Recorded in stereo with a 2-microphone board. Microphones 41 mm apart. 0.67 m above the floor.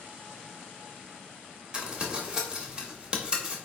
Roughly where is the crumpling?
Right.